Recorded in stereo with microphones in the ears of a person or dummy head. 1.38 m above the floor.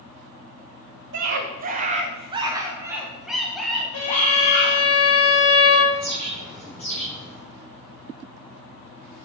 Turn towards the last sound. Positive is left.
turn(degrees=10)  # may be behind; listen again after turning